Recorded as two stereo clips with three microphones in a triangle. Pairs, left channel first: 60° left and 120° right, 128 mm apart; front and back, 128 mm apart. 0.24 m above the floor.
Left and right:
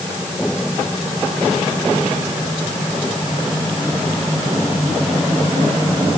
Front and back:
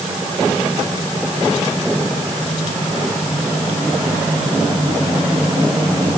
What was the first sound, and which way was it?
Only background noise.